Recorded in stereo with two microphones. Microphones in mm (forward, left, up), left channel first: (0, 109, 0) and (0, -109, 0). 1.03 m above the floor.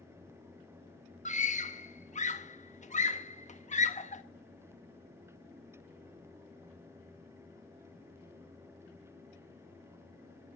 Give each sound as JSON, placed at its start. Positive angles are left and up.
{"t": 1.2, "sound": "a scream", "side_deg": 30, "distance_m": 1.5}